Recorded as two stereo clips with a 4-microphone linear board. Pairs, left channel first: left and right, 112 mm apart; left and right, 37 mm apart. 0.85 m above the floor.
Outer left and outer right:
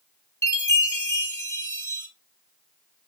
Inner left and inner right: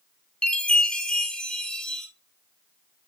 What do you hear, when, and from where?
0.4 s a chime: 25° left (ahead or behind), 2.5 m